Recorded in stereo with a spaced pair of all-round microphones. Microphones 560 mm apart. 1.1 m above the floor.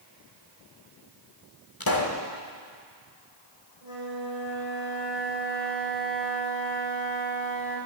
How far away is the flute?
About 3 m.